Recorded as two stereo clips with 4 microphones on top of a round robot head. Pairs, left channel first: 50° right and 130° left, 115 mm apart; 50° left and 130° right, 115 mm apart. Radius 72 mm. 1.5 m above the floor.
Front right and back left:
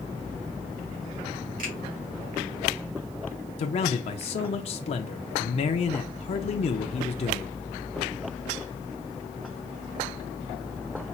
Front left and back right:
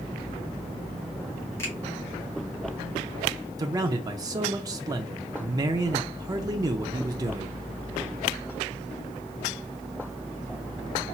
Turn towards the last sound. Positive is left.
turn(degrees=-75)